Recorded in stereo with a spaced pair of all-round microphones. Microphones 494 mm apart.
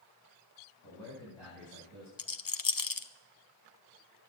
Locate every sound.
0.8 s a man speaking: 60° right (ahead or behind), 10 m; by 2.1 s 65° right (ahead or behind), 10.5 m
2.2 s a rattle: 45° left (ahead or behind), 0.7 m